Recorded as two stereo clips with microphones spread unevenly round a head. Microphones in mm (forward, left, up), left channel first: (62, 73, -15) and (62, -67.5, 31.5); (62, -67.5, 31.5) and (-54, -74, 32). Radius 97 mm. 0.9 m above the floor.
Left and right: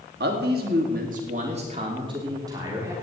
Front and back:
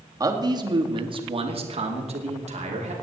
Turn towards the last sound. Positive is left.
turn(degrees=-170)